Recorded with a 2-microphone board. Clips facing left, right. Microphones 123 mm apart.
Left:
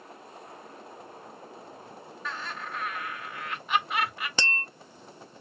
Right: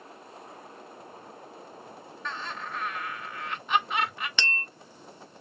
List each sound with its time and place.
2.2 s laughter: 5° left (ahead or behind), 2.0 m
4.4 s tapping: 35° left (ahead or behind), 0.9 m